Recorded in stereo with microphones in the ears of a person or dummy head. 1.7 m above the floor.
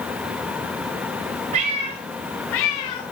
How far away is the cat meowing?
About 1.6 m.